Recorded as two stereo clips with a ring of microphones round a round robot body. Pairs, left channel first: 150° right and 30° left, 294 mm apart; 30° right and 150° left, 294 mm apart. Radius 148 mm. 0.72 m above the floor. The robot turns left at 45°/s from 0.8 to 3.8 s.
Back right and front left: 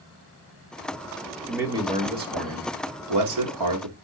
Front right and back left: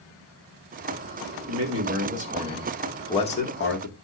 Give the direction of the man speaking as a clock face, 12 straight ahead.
8 o'clock.